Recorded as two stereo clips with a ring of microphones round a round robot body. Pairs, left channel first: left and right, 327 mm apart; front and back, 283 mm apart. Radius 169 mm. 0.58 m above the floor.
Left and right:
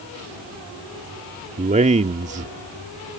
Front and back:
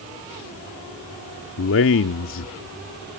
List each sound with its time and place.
1.6 s a man speaking: 25° right